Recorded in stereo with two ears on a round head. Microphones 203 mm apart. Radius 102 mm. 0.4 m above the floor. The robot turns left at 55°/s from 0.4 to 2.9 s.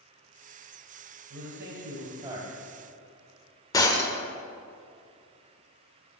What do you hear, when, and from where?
1.3 s a man speaking: 105° right, 1.9 m; by 2.5 s 170° right, 1.9 m
3.7 s breaking glass: 15° left (ahead or behind), 0.7 m